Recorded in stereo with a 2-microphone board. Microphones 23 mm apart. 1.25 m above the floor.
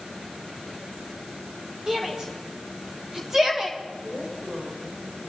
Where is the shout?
25° right (ahead or behind), 3.5 m; by 3.8 s 15° right (ahead or behind), 2.5 m.